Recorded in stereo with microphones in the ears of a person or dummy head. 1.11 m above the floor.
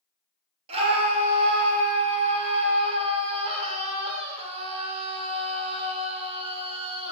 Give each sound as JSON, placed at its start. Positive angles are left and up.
{"t": 0.7, "sound": "a scream", "side_deg": -30, "distance_m": 1.3}